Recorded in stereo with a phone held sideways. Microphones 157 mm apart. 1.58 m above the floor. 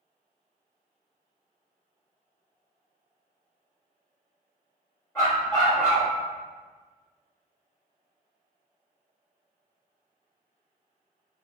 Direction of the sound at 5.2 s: 25° left (ahead or behind).